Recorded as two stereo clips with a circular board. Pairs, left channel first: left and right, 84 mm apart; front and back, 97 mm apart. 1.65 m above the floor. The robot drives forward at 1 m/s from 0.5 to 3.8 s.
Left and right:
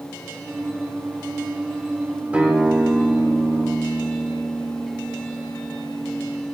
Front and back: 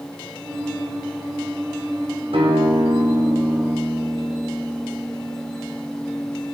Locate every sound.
2.3 s a guitar: 165° right, 2.5 m; by 6.4 s 170° right, 4 m